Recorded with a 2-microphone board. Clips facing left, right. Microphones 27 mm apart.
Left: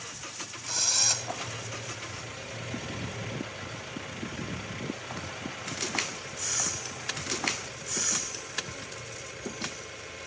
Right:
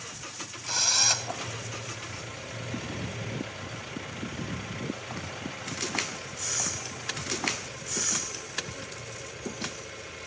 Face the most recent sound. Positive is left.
turn(degrees=-20)  # may be behind; listen again after turning